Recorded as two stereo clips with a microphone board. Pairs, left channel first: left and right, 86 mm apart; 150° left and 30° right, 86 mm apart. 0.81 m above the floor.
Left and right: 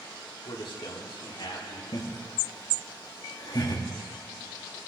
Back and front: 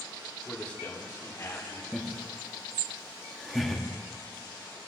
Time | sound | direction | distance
0.5 | a man speaking | 70° left | 1.7 m
1.9 | laughter | 60° left | 1.3 m